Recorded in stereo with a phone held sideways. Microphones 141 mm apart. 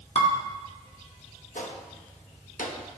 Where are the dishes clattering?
50° left (ahead or behind), 1.6 m.